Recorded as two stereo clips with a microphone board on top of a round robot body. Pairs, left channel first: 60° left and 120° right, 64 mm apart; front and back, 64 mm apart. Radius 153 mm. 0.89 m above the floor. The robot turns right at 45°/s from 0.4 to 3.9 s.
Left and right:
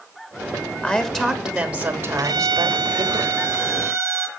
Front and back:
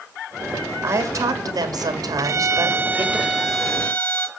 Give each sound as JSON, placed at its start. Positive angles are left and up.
{"t": 0.8, "sound": "a woman speaking", "azimuth_deg": 130, "distance_m": 2.5}
{"t": 2.2, "sound": "a violin", "azimuth_deg": -145, "distance_m": 1.3}